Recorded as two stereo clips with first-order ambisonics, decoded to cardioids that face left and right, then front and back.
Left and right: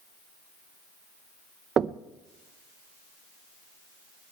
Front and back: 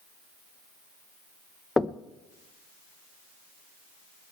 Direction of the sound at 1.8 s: 70° right.